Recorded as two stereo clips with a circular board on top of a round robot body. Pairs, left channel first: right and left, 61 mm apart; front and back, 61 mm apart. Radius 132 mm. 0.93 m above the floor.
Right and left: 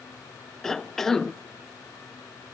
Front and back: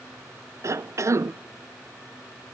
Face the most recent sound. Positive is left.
turn(degrees=-170)